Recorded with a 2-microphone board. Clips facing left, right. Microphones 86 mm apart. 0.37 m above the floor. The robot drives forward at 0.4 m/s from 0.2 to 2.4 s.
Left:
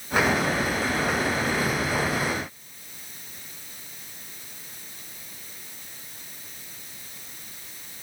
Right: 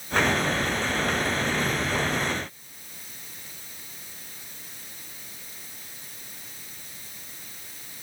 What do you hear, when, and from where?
Only background noise.